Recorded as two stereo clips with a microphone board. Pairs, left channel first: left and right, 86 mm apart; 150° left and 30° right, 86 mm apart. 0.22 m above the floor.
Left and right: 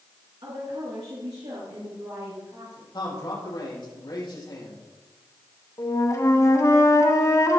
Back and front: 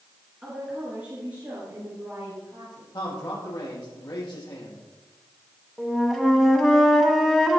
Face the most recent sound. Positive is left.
turn(degrees=65)